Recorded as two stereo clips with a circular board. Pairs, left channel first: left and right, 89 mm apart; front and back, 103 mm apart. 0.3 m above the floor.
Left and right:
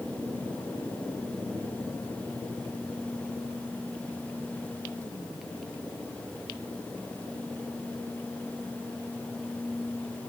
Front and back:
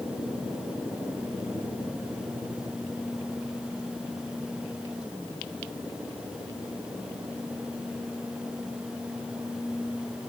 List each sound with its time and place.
Only background noise.